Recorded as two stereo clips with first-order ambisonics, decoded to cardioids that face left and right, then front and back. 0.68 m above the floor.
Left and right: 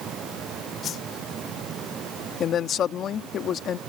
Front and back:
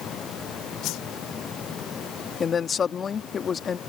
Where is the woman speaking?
60° left.